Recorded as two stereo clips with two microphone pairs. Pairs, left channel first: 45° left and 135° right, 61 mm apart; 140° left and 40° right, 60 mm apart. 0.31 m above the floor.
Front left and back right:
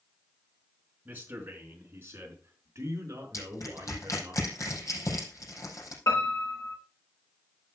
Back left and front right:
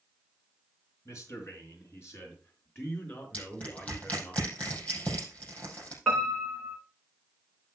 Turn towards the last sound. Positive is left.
turn(degrees=50)